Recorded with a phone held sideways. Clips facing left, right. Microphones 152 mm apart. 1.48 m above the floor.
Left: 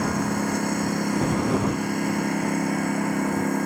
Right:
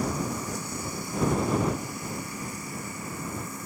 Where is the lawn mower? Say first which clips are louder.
Left 6 dB; 70° left (ahead or behind).